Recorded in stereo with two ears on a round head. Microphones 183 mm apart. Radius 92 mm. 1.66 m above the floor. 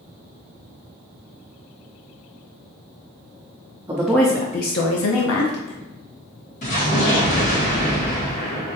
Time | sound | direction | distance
3.9 | a woman speaking | 15° right (ahead or behind) | 0.7 m
6.6 | an explosion | 35° left (ahead or behind) | 1.5 m